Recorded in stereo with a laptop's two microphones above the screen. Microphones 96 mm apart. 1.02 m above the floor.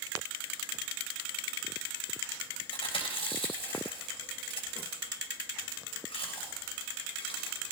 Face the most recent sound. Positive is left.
turn(degrees=90)